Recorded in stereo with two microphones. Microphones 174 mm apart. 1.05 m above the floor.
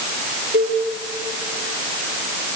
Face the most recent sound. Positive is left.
turn(degrees=-75)  # may be behind; listen again after turning